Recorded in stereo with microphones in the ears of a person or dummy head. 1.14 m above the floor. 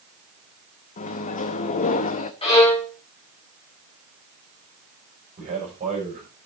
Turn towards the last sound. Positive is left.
turn(degrees=-25)  # may be behind; listen again after turning